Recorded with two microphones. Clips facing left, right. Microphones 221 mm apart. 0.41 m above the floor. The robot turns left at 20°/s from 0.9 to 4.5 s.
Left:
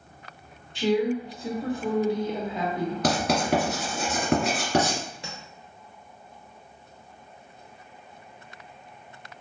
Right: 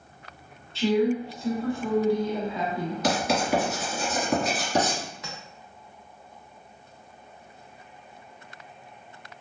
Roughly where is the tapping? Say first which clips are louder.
Even; left.